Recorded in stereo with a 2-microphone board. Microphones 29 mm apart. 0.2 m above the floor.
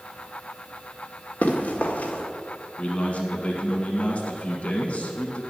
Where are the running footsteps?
70° left (ahead or behind), 1.9 m.